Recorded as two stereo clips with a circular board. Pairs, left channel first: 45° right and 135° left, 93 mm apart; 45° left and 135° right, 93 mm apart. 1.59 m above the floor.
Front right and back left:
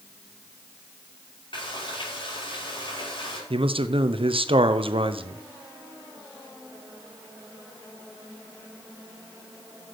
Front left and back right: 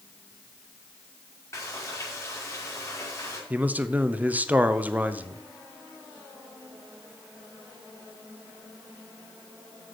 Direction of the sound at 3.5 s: 150° left.